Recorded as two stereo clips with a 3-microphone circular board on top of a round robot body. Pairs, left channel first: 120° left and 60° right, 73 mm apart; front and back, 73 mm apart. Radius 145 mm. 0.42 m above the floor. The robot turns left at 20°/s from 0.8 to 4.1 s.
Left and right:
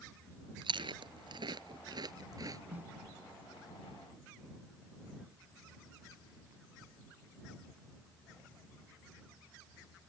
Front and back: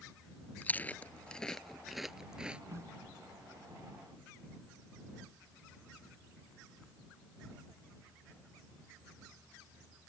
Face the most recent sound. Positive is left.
turn(degrees=-155)